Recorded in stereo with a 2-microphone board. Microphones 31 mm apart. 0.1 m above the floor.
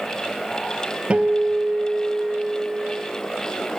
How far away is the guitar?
About 1.3 m.